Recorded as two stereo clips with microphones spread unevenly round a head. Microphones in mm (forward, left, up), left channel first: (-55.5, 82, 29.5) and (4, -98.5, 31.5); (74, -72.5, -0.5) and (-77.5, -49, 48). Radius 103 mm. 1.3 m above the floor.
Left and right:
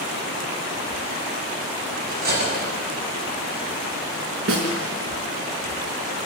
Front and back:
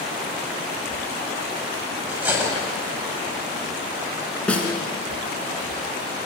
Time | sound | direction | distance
2.1 | cutlery clinking | 110° right | 5.5 m
4.5 | a snare drum | 95° right | 4 m